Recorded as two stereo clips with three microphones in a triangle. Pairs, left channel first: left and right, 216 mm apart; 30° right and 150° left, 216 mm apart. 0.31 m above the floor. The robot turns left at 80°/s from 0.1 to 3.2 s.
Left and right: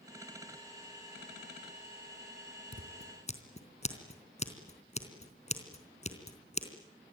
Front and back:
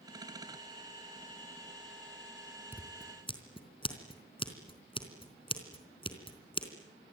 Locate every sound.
2.7 s scissors: 70° left, 3.5 m; by 6.7 s 35° left, 3.5 m